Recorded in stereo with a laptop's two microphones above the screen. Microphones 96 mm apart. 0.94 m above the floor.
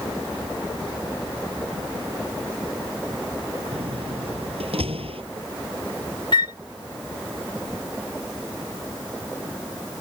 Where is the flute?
50° left (ahead or behind).